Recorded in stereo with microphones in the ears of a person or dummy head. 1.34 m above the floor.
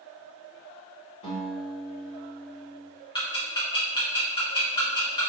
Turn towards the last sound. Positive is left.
turn(degrees=25)  # may be behind; listen again after turning